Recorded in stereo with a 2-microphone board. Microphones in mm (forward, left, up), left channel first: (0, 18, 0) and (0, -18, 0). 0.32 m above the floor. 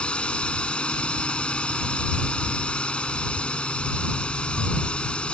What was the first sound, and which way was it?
A drone, 30° left (ahead or behind).